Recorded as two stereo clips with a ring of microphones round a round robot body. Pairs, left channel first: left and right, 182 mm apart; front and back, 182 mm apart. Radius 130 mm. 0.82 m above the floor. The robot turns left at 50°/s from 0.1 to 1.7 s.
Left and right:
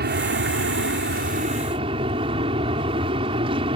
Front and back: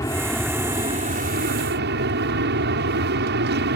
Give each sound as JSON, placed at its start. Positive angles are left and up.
{"t": 0.0, "sound": "an aircraft", "azimuth_deg": -75}